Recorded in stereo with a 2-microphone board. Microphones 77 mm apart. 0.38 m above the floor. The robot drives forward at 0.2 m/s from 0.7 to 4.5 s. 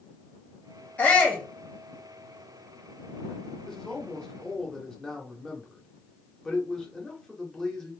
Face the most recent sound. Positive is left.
turn(degrees=10)  # may be behind; listen again after turning